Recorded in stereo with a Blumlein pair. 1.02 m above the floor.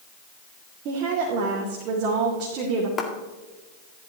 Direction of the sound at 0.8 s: 40° right.